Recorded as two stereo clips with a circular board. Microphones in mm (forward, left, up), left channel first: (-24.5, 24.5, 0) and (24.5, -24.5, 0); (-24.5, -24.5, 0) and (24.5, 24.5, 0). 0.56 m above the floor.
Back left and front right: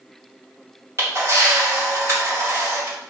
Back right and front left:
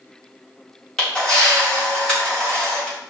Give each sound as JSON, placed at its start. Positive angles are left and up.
{"t": 1.0, "sound": "a camera shutter", "azimuth_deg": -65, "distance_m": 1.5}